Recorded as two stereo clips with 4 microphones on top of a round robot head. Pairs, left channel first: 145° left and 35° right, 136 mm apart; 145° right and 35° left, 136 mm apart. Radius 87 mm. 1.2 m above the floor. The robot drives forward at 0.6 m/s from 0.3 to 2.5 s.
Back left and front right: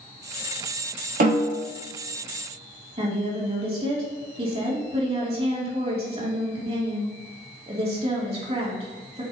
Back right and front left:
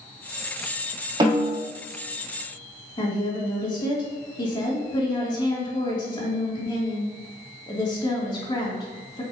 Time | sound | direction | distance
1.2 | a snare drum | 20° right | 3 m
3.0 | a woman speaking | 85° right | 2.5 m